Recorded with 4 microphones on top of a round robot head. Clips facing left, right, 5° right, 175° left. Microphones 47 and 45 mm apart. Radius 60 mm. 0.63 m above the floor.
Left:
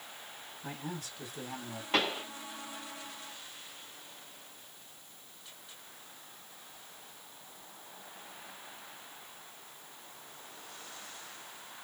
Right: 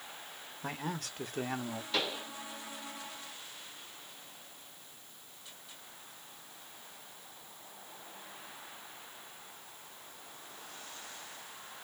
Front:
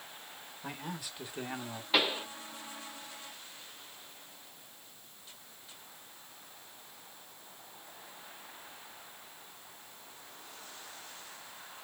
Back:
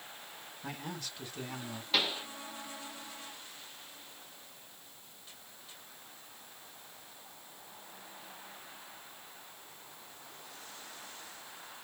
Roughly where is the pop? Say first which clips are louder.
Left 5 dB, front 3 dB; ahead left.